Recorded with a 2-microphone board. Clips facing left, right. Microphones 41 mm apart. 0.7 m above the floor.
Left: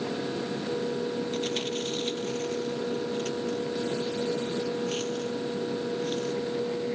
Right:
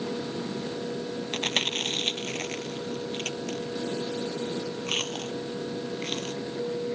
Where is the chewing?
60° right (ahead or behind).